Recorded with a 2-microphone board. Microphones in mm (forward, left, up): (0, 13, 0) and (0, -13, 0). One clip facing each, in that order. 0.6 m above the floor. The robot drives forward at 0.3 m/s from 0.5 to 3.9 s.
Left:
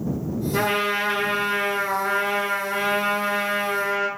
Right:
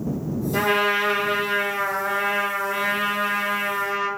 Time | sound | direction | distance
0.5 | a trumpet | 10° right (ahead or behind) | 1.3 m